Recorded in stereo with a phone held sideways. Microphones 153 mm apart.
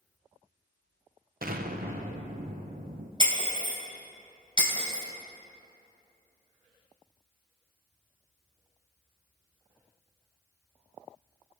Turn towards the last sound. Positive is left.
turn(degrees=-30)  # may be behind; listen again after turning